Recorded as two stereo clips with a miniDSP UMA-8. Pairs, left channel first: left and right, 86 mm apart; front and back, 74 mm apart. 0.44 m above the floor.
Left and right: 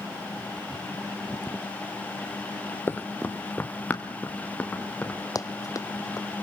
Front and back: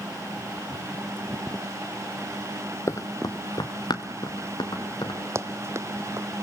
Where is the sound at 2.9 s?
35° left, 0.6 m; by 5.2 s 15° left, 4 m.